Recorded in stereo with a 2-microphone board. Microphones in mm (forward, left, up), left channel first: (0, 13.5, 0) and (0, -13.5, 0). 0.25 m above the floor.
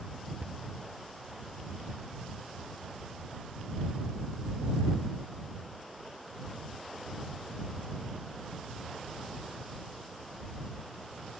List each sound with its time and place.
0.4 s a cupboard door: 45° right (ahead or behind)